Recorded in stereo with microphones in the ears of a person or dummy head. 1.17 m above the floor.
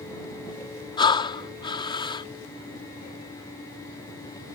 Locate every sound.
1.0 s breathing: 30° left (ahead or behind)